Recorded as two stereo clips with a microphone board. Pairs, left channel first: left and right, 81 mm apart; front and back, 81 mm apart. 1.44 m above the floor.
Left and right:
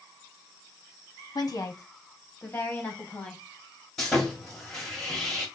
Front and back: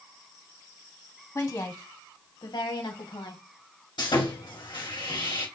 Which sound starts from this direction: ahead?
Sawing, at 4.0 s.